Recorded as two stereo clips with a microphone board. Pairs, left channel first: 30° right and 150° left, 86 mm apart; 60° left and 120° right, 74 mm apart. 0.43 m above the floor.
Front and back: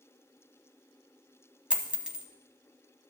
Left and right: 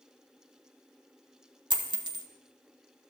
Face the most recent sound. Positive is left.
turn(degrees=-135)